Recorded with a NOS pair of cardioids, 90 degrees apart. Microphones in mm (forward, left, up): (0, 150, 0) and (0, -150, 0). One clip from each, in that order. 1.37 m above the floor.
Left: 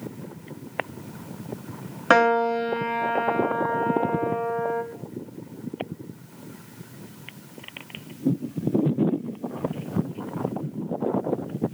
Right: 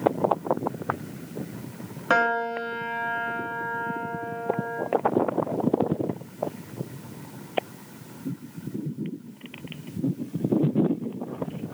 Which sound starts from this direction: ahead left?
A piano, at 2.1 s.